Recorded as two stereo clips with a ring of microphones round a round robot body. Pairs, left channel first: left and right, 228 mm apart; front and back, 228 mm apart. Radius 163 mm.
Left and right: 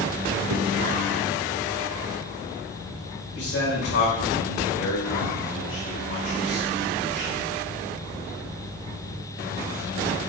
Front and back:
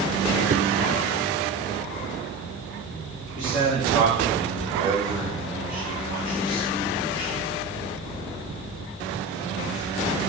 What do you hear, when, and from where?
0.5 s a whoosh: 120° right, 0.8 m
3.4 s a man speaking: 95° left, 3.5 m